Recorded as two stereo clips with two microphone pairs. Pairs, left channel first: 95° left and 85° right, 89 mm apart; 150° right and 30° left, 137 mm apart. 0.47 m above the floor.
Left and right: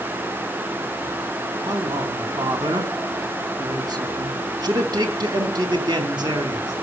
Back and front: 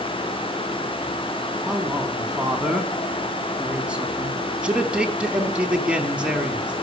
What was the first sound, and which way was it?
A man speaking, 50° right.